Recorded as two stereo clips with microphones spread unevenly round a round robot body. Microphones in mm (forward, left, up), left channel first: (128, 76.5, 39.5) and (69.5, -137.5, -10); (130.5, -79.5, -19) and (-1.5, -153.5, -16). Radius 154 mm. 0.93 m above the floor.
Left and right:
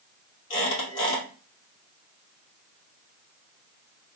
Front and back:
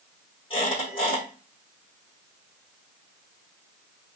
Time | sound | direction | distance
0.5 | a squeak | 100° left | 2.5 m